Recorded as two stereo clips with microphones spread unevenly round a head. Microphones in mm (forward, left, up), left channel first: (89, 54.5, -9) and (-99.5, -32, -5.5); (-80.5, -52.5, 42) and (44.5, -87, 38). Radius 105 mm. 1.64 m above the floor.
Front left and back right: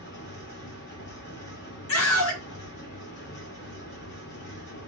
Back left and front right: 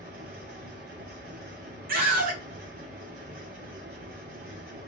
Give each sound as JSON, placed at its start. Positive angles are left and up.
{"t": 0.0, "sound": "a fan", "azimuth_deg": -10, "distance_m": 3.0}
{"t": 1.9, "sound": "a scream", "azimuth_deg": 0, "distance_m": 2.5}